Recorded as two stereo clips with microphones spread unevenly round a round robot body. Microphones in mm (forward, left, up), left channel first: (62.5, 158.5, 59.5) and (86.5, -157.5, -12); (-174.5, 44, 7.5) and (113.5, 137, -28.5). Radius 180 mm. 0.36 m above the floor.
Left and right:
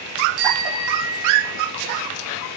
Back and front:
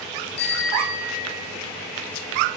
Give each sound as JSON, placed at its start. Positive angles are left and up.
{"t": 0.4, "sound": "a bicycle bell", "azimuth_deg": -95, "distance_m": 6.0}